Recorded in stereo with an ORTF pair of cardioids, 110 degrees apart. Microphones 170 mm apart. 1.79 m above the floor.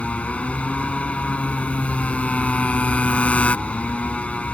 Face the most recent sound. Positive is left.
turn(degrees=5)